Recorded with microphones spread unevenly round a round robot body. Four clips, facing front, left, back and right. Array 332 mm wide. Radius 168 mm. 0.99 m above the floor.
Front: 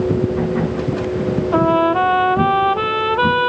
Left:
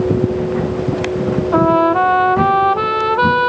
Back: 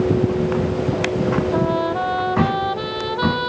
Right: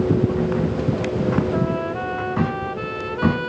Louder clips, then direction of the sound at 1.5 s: Left 11 dB, front 5 dB; 70° left.